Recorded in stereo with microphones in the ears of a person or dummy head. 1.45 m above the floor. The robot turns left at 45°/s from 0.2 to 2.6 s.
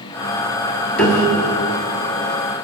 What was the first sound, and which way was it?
A piano, 170° left.